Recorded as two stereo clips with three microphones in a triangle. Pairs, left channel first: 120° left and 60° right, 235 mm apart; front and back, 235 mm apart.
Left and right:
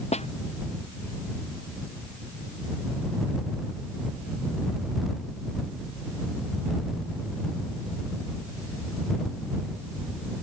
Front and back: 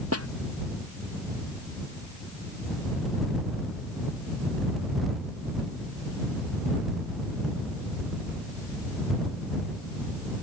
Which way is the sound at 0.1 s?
175° right.